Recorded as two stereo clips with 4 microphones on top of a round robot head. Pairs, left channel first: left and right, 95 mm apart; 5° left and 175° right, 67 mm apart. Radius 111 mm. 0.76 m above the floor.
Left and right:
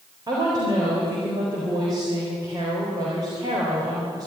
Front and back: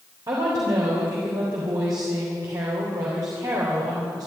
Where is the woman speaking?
140° right, 4 m.